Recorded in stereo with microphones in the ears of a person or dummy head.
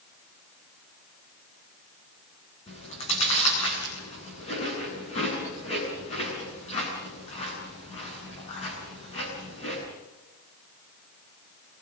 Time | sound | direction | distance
2.7 | chewing | 35° left (ahead or behind) | 8 m